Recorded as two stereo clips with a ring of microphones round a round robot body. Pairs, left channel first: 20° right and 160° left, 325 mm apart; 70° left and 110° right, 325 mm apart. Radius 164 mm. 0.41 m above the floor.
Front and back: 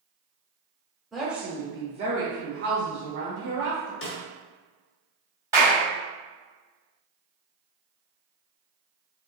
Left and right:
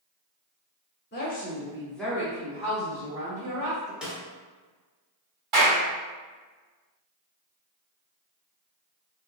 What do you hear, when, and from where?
1.1 s a woman speaking: 65° left, 0.8 m; by 3.9 s 155° right, 1.3 m
4.0 s a snare drum: 25° right, 0.8 m
5.5 s a clap: 125° right, 2.0 m